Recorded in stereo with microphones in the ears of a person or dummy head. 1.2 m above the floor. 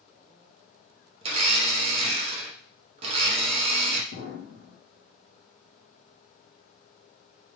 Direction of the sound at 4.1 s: 50° right (ahead or behind).